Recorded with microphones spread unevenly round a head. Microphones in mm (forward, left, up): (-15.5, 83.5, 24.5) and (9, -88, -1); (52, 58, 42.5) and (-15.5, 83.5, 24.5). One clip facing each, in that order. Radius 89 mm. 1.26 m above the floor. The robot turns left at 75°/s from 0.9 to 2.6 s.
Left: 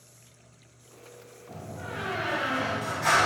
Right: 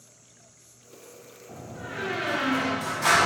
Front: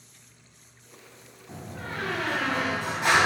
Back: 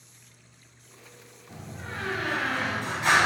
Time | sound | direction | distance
1.5 | a door slam | 25° left | 0.9 m